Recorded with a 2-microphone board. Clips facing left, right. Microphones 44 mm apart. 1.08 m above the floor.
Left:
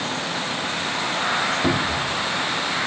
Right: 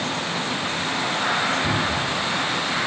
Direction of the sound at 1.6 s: 70° left (ahead or behind).